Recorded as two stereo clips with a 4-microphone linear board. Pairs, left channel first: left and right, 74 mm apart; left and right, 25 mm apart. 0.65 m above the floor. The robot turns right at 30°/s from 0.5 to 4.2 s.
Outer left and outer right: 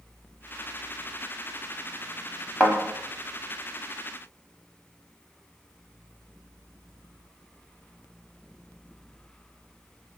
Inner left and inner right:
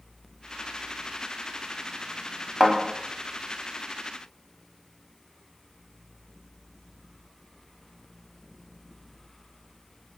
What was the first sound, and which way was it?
A thud, 15° left (ahead or behind).